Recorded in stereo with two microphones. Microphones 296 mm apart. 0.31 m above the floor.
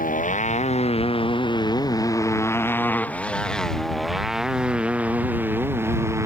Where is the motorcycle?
25° left (ahead or behind); by 6.3 s 10° right (ahead or behind).